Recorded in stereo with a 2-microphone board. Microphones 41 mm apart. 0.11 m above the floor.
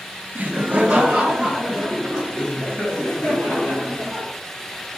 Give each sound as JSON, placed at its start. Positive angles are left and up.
{"t": 0.3, "sound": "laughter", "side_deg": -35, "distance_m": 1.5}